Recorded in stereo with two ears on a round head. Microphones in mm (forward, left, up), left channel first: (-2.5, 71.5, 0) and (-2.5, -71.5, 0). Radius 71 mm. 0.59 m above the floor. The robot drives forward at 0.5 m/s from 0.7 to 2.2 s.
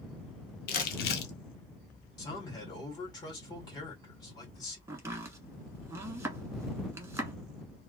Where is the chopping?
20° right (ahead or behind), 0.9 m.